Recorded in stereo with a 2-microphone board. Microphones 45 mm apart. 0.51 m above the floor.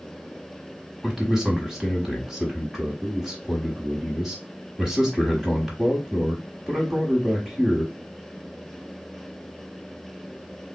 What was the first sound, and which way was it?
A man speaking, 5° right (ahead or behind).